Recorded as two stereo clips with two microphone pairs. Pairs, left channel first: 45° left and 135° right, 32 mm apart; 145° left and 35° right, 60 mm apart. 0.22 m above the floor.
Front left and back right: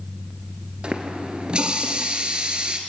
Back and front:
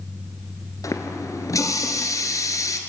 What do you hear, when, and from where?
0.8 s a running tap: 165° left, 2 m